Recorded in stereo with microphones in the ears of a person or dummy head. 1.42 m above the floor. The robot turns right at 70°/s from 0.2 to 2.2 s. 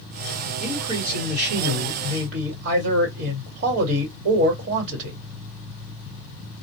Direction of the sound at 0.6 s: 170° right.